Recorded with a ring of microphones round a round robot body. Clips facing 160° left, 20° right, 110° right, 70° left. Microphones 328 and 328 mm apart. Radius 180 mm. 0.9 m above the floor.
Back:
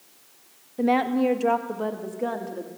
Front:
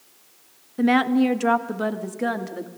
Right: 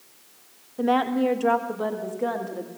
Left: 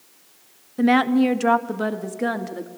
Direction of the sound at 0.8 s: 30° left.